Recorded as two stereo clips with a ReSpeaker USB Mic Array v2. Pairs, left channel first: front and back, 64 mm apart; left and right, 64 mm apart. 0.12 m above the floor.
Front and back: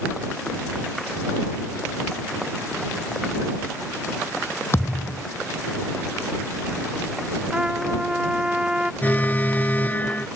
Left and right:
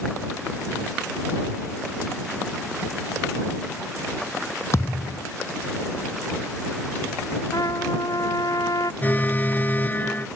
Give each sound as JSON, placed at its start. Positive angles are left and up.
{"t": 4.7, "sound": "a thud", "azimuth_deg": 45}
{"t": 7.5, "sound": "a trumpet", "azimuth_deg": 100}
{"t": 9.0, "sound": "an alarm", "azimuth_deg": 45}